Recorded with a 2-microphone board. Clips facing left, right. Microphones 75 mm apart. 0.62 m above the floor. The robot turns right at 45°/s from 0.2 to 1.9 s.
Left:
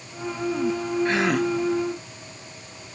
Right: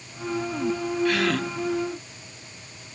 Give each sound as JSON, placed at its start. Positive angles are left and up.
{"t": 1.1, "sound": "a gasp", "side_deg": 30, "distance_m": 0.7}